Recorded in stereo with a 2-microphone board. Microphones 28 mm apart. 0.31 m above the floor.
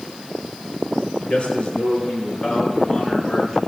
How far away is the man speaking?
About 4 m.